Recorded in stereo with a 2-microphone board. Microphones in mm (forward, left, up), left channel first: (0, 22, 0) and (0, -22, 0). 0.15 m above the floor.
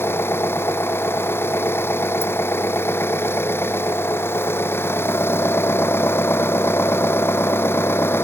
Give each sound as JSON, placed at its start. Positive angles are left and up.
{"t": 0.0, "sound": "an engine running", "side_deg": 60}